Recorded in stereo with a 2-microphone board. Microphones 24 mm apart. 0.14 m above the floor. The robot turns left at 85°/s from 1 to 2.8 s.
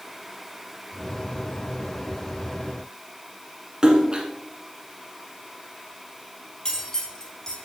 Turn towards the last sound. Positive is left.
turn(degrees=20)  # may be behind; listen again after turning